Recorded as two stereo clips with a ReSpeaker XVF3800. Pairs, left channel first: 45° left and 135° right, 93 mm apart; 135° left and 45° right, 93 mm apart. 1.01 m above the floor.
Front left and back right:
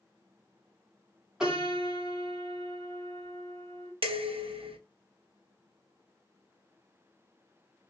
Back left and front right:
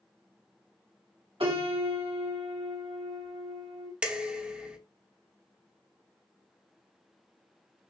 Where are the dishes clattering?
125° right, 0.7 m.